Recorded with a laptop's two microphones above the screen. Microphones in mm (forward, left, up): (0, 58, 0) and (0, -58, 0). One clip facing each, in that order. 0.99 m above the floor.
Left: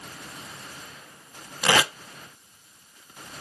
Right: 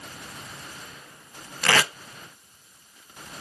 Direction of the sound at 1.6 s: 15° left (ahead or behind).